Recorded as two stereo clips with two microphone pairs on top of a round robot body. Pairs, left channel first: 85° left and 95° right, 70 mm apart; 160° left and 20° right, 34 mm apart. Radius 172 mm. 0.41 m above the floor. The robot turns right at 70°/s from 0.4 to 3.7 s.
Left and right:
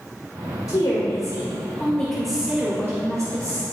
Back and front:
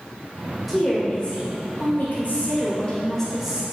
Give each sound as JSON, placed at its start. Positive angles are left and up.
{"t": 0.7, "sound": "a woman speaking", "azimuth_deg": 65, "distance_m": 1.9}